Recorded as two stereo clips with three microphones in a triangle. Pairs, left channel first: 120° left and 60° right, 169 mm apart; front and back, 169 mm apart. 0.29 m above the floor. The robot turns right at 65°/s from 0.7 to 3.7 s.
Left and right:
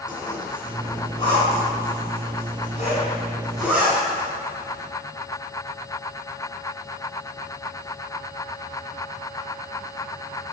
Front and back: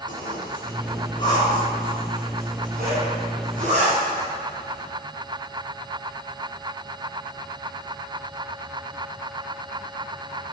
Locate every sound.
0.1 s a zipper: 25° left, 2.5 m; by 4.8 s 140° right, 2.5 m